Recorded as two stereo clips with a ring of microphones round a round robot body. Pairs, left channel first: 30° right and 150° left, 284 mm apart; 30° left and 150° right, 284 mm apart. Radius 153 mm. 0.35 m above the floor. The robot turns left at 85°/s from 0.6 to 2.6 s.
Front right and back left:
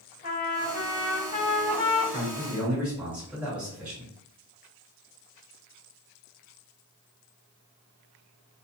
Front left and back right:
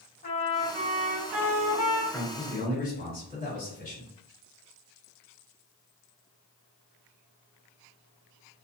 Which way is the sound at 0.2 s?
5° left.